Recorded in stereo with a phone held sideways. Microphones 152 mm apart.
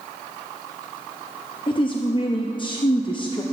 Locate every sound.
1.7 s a woman speaking: 35° left (ahead or behind), 0.6 m